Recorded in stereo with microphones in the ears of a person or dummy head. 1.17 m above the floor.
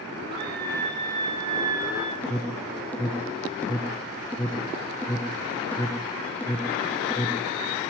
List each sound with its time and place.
0.3 s a scream: 30° right (ahead or behind), 7 m; by 2.1 s 20° right (ahead or behind), 6 m
2.2 s an alarm: 15° left (ahead or behind), 1.6 m